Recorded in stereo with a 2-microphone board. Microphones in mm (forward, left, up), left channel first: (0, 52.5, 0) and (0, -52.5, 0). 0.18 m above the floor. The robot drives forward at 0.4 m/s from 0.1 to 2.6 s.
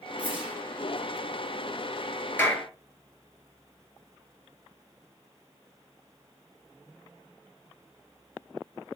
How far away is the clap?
About 3.5 m.